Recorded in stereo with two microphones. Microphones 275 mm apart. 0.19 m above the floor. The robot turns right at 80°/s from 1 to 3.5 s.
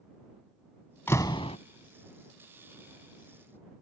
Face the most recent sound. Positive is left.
turn(degrees=-150)